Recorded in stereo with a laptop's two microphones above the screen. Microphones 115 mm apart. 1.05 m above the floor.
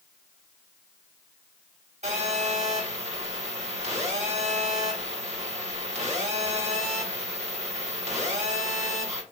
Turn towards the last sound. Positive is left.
turn(degrees=-75)  # may be behind; listen again after turning